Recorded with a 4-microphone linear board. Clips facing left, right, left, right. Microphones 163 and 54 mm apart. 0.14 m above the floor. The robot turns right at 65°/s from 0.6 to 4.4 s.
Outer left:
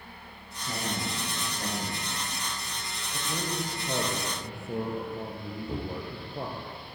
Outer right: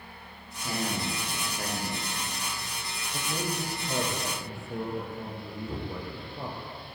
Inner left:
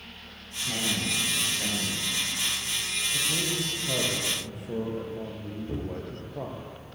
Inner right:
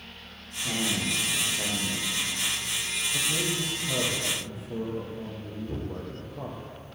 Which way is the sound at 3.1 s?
5° right.